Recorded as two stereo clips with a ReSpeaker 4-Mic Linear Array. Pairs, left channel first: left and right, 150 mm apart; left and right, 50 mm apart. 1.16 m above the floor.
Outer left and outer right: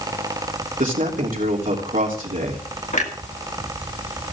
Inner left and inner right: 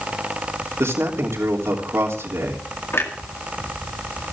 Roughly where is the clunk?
Left.